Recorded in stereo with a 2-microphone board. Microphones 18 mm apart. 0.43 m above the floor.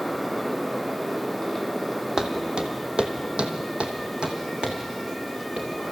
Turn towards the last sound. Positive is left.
turn(degrees=-50)  # may be behind; listen again after turning